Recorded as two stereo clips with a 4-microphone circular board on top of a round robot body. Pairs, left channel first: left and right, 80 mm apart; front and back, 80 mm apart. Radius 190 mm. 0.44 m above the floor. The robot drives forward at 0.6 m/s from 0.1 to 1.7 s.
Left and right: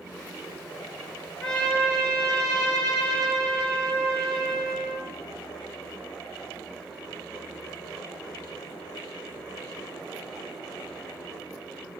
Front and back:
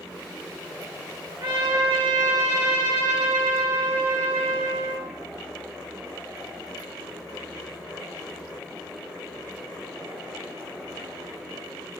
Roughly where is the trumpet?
Behind.